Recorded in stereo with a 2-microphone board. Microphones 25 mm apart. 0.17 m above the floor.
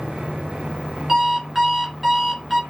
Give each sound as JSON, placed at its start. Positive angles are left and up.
{"t": 1.1, "sound": "an alarm clock", "side_deg": -15, "distance_m": 1.2}